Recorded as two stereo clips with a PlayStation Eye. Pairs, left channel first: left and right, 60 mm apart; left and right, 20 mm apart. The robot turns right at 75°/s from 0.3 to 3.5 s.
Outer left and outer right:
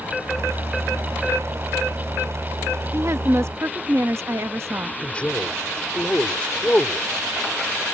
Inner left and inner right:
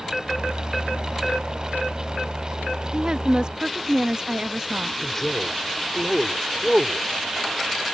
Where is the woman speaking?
115° right; by 4.9 s 75° right.